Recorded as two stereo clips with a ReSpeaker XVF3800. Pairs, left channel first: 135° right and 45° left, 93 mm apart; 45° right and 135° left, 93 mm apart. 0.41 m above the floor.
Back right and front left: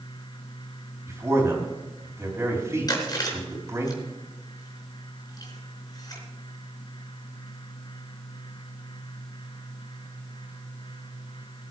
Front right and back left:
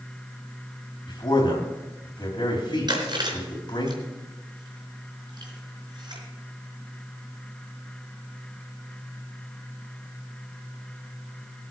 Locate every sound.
1.1 s a man speaking: 10° right, 3 m
2.9 s chewing: straight behind, 4 m